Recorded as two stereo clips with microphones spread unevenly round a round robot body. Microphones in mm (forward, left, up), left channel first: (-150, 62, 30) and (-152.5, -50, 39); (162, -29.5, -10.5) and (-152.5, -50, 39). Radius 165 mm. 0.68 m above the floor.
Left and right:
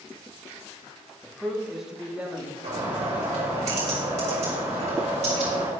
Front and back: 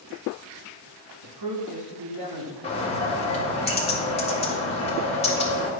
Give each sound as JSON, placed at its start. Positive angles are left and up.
{"t": 1.2, "sound": "a man speaking", "azimuth_deg": 165, "distance_m": 1.6}
{"t": 2.6, "sound": "a bird", "azimuth_deg": -60, "distance_m": 1.7}